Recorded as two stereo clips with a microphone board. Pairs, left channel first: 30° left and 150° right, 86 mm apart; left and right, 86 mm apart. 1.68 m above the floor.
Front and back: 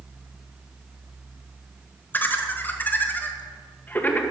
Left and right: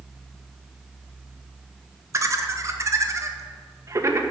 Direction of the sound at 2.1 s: 35° right.